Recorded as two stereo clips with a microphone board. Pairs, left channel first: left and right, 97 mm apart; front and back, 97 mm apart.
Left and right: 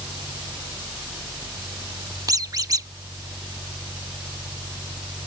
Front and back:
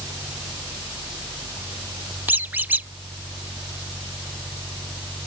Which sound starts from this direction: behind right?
A squeak, at 2.3 s.